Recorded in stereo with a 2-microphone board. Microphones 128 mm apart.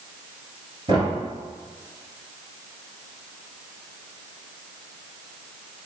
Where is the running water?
No running water in this recording.